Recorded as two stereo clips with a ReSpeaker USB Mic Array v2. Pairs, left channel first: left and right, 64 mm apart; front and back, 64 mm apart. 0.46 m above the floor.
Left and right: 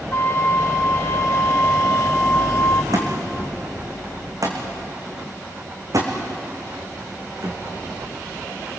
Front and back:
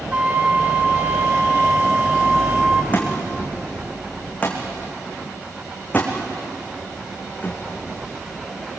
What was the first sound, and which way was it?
A flute, 115° left.